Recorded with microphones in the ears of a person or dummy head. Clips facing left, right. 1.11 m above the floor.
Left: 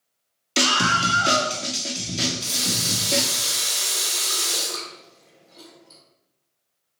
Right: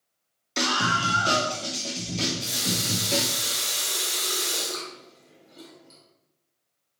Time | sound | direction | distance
0.6 | a scream | 40° left (ahead or behind) | 0.5 m
2.2 | a running tap | 25° right (ahead or behind) | 1.3 m